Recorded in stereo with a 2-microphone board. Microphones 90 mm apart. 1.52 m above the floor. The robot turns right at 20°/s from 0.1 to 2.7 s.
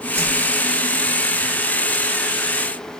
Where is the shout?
I don't hear a shout.